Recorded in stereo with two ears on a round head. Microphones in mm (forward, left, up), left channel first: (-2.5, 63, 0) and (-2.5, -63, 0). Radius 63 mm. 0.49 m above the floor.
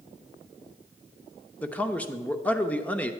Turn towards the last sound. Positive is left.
turn(degrees=10)  # may be behind; listen again after turning